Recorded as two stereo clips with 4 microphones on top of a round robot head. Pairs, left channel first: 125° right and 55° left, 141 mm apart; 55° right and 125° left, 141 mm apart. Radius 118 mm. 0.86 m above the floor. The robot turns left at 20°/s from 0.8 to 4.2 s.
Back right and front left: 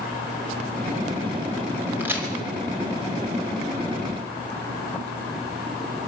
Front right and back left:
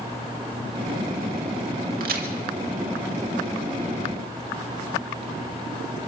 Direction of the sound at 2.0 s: 135° left.